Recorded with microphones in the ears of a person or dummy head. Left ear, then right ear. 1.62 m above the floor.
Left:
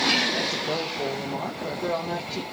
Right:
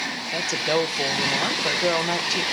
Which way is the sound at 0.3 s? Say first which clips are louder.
Right 3 dB; 55° right (ahead or behind).